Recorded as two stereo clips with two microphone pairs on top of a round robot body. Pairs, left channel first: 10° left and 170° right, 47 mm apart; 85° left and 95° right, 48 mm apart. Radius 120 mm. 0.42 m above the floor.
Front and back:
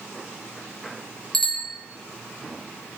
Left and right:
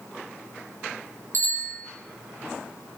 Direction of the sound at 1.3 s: 70° right.